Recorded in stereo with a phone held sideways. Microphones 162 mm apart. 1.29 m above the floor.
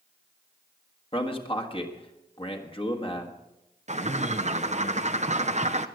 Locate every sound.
1.1 s a man speaking: 35° left (ahead or behind), 1.8 m
3.9 s a bird: 45° right (ahead or behind), 0.7 m